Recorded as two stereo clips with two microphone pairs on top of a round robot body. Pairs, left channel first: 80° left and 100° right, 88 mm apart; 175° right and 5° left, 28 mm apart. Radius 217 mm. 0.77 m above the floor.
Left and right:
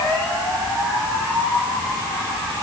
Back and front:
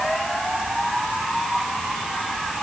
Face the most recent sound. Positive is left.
No sound to turn to.